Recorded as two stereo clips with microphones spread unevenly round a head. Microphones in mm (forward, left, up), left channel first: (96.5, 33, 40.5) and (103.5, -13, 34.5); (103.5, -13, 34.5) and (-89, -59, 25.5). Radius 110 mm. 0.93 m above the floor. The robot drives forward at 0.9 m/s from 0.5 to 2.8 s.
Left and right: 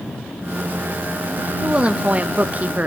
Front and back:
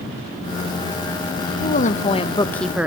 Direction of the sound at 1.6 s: 25° right.